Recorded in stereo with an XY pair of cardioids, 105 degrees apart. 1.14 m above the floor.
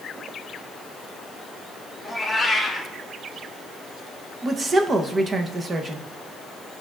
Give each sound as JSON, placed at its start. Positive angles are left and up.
{"t": 2.0, "sound": "a cat meowing", "azimuth_deg": -10, "distance_m": 2.0}
{"t": 4.4, "sound": "a woman speaking", "azimuth_deg": -35, "distance_m": 0.9}